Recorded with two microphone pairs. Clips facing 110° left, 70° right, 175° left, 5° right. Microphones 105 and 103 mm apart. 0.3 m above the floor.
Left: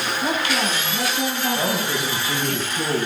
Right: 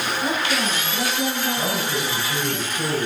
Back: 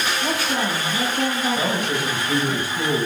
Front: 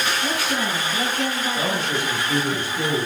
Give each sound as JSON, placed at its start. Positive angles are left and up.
{"t": 0.2, "sound": "a woman speaking", "azimuth_deg": 155, "distance_m": 2.0}
{"t": 1.6, "sound": "a man speaking", "azimuth_deg": 100, "distance_m": 2.0}